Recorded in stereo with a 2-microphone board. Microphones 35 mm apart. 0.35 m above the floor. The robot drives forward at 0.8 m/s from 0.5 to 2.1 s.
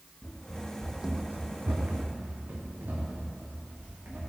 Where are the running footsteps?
25° left (ahead or behind), 1.5 m; by 4.2 s 75° right (ahead or behind), 4.5 m.